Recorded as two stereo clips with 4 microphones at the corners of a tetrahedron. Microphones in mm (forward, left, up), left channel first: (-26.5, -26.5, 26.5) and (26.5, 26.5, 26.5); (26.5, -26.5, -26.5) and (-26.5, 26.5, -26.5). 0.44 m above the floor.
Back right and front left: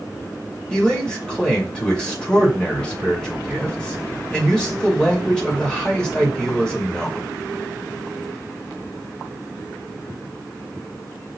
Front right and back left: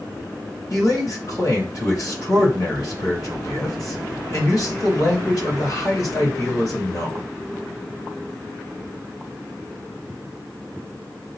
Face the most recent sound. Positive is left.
turn(degrees=-60)